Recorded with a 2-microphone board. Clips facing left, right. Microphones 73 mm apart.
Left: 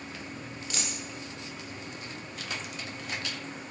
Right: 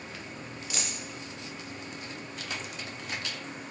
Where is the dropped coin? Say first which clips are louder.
Even; 5° right (ahead or behind), 0.7 m.